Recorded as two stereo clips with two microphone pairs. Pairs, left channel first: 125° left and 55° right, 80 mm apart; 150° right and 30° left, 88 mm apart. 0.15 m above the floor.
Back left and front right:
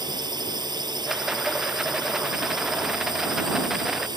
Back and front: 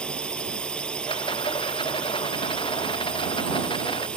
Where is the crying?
No crying in this recording.